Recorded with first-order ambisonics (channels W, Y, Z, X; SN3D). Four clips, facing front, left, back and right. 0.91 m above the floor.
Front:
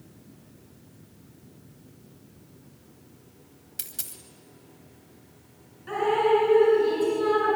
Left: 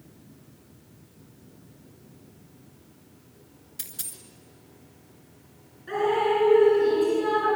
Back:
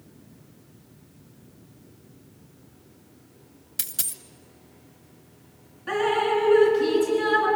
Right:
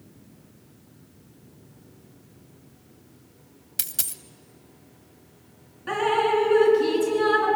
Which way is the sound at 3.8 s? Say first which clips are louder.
Right 7 dB, back 7 dB; 110° right.